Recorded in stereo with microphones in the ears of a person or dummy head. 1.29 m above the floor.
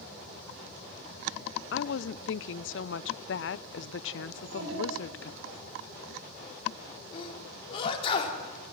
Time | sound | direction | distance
1.7 | a woman speaking | 60° left (ahead or behind) | 0.5 m
4.3 | a child speaking | 70° right (ahead or behind) | 3.5 m
7.1 | a sneeze | 35° left (ahead or behind) | 3.5 m